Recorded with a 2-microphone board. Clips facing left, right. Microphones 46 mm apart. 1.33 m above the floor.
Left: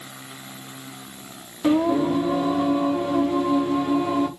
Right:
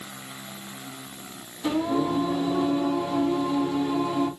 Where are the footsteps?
I don't hear footsteps.